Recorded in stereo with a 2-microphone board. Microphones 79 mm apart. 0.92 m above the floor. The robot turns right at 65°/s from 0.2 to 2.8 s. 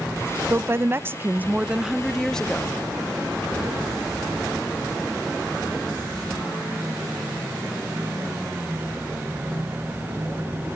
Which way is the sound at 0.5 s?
30° right (ahead or behind).